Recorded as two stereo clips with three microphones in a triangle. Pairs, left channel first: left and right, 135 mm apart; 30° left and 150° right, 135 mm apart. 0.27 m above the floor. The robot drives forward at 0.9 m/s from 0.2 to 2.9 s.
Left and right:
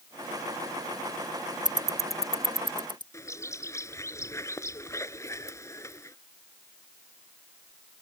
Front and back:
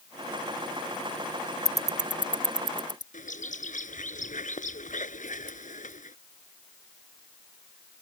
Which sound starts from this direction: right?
Ticking, at 1.6 s.